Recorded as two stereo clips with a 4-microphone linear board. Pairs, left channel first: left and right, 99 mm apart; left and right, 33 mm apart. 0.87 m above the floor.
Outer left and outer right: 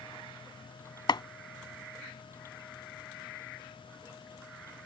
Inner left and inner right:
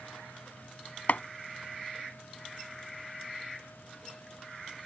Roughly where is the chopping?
Left.